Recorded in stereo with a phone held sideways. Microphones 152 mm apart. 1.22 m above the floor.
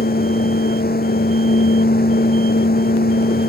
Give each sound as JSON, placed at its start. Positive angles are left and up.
{"t": 0.0, "sound": "a fan", "side_deg": 85}